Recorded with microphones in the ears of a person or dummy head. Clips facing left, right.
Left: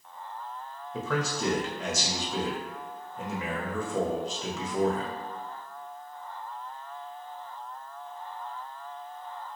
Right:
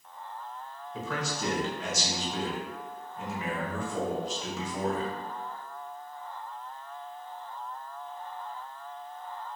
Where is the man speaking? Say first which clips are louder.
Left 4 dB; 70° left (ahead or behind), 0.7 m.